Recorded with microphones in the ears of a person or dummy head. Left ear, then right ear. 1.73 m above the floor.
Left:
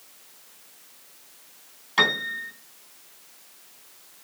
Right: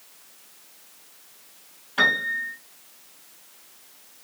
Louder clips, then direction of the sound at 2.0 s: Right 1 dB; 60° left (ahead or behind).